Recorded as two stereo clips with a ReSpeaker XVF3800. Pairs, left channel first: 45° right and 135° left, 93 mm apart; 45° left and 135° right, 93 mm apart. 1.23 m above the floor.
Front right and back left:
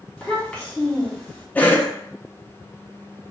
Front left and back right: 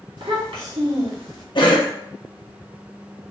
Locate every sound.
0.2 s a child speaking: 125° right, 1.6 m
1.6 s a cough: 25° left, 0.8 m